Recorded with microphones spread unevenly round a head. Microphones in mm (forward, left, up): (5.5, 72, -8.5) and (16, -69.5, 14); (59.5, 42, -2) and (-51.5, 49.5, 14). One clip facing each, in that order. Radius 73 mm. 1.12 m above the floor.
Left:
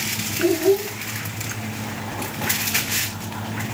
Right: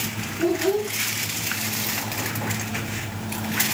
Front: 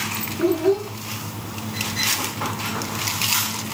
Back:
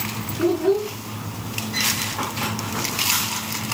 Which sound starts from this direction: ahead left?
A child speaking, at 0.4 s.